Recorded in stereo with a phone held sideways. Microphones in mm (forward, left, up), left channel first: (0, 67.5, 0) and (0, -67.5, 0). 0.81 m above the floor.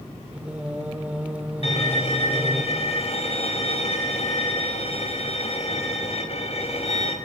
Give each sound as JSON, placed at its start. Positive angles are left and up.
{"t": 0.3, "sound": "singing", "side_deg": -10, "distance_m": 2.5}
{"t": 1.6, "sound": "a violin", "side_deg": 55, "distance_m": 5.0}